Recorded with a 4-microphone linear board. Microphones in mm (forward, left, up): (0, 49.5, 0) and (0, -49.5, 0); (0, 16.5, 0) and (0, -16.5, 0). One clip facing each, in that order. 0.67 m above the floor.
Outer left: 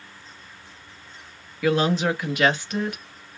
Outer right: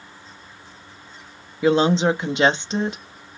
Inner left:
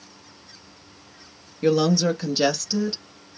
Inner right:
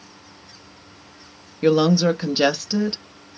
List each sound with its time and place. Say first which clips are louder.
1.6 s a woman speaking: outer right 4 dB, inner right 3 dB; 25° right (ahead or behind), 0.8 m